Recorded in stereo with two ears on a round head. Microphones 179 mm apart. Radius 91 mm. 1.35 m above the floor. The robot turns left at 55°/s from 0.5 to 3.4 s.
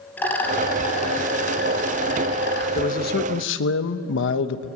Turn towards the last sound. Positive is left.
turn(degrees=110)